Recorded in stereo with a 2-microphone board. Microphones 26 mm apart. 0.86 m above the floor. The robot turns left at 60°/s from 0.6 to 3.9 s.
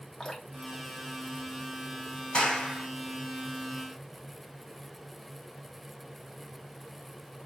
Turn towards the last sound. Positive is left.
turn(degrees=-60)